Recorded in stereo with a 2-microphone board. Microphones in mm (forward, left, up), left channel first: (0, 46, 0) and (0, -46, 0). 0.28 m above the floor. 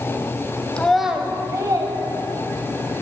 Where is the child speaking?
10° left (ahead or behind), 1.0 m; by 2.9 s 65° right (ahead or behind), 1.9 m.